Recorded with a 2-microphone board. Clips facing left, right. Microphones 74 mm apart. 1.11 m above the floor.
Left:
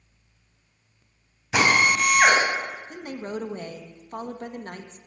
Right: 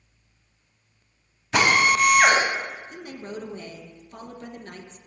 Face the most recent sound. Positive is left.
turn(degrees=50)  # may be behind; listen again after turning